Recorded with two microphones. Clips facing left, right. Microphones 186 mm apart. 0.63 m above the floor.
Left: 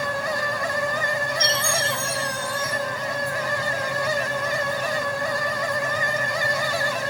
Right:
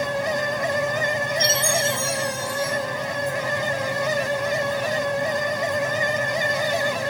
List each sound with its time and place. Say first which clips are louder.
1.4 s a chime: right 3 dB; 60° left (ahead or behind), 3.5 m